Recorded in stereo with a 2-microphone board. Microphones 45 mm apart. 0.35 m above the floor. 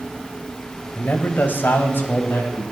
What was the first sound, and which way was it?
A man speaking, 40° left (ahead or behind).